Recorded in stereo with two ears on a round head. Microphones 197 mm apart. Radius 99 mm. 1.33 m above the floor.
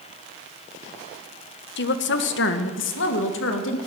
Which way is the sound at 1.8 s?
55° left (ahead or behind).